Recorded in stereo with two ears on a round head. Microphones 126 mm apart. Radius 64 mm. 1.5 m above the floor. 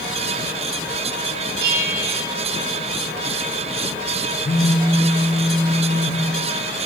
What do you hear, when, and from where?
1.6 s a bell: 75° right (ahead or behind), 3 m
4.5 s a phone buzzing: 40° left (ahead or behind), 1.7 m